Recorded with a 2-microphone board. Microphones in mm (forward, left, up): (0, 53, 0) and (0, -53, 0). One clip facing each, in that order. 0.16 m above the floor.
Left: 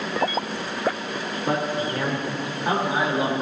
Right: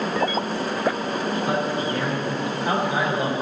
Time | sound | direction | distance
1.5 | a man speaking | 35° left (ahead or behind) | 6 m